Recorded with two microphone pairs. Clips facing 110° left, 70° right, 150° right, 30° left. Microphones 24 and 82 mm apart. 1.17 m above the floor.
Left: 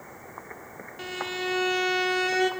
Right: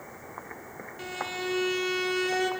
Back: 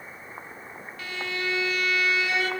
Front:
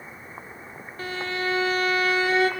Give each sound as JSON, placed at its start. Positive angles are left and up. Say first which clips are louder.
{"t": 1.0, "sound": "a violin", "louder": "left 2 dB, front 3 dB", "azimuth_deg": 45, "distance_m": 0.7}